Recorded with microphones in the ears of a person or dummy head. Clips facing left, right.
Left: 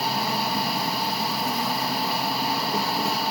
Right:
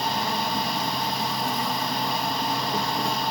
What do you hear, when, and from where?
0.0 s an insect: 5° right (ahead or behind)